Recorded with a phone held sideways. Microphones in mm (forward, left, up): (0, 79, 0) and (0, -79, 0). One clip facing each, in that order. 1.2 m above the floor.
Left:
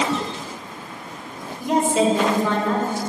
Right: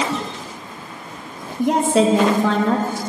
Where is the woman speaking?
80° right, 1.2 m.